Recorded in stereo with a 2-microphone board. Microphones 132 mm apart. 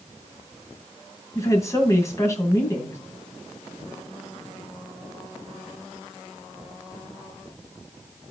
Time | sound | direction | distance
1.4 | a woman speaking | 25° left (ahead or behind) | 2.5 m